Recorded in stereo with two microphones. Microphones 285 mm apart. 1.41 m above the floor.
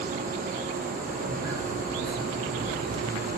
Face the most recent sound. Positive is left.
turn(degrees=-60)  # may be behind; listen again after turning